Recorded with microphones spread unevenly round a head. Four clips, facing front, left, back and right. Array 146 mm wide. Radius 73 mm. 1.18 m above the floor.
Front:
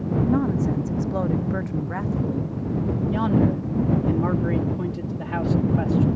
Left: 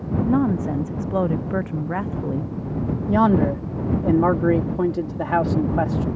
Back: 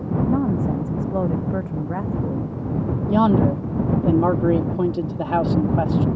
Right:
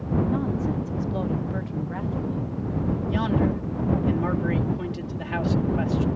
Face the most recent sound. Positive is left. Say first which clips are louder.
# left 8 dB, back 5 dB
turn(degrees=135)